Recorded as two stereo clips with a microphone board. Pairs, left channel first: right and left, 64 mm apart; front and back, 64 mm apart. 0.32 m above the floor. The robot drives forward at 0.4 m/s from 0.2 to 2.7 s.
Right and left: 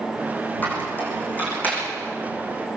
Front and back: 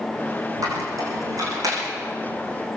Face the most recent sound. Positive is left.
turn(degrees=-155)